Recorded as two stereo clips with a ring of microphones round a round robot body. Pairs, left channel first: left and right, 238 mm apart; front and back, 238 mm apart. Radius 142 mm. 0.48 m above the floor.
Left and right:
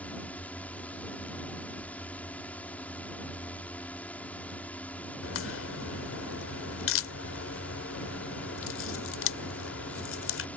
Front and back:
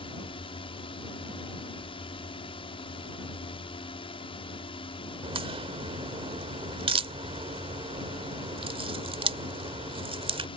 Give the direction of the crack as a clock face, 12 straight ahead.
8 o'clock.